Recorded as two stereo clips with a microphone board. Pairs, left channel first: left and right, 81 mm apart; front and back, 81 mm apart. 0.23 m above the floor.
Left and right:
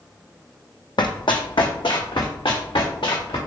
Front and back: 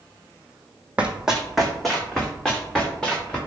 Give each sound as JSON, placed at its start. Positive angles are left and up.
{"t": 1.0, "sound": "running footsteps", "azimuth_deg": 105, "distance_m": 0.7}